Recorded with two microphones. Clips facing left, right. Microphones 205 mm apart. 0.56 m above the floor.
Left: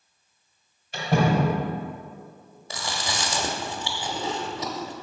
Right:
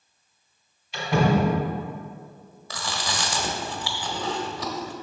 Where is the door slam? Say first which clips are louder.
Right 1 dB; 55° left (ahead or behind), 2.5 m.